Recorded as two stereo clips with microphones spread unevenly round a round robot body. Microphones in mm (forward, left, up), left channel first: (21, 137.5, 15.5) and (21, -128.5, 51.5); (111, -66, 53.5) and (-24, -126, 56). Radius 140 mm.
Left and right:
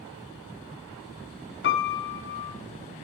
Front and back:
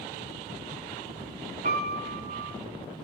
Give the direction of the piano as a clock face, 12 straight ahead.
7 o'clock.